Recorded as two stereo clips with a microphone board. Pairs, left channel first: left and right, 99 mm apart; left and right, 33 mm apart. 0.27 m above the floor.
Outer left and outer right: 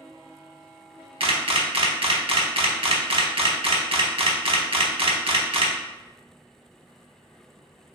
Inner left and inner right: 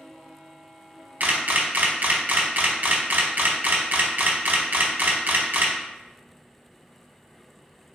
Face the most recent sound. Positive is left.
turn(degrees=-70)  # may be behind; listen again after turning